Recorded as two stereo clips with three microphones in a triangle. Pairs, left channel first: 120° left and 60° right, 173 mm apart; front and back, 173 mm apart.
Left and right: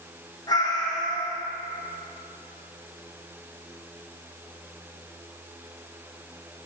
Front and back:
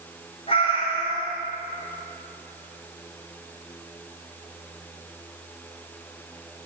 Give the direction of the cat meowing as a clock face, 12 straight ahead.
10 o'clock.